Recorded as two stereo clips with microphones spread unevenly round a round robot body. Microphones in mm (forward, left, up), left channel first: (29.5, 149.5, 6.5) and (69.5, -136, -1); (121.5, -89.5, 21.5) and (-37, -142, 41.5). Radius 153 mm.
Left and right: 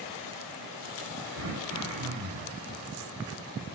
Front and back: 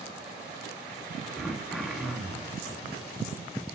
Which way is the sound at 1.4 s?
70° right.